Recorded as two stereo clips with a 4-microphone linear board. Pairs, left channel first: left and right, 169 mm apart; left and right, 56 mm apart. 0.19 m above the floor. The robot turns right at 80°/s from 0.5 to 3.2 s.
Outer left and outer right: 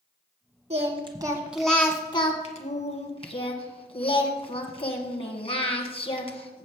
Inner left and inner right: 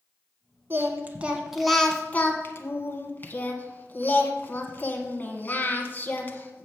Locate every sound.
0.7 s singing: 75° right, 1.5 m; by 6.7 s 125° left, 1.5 m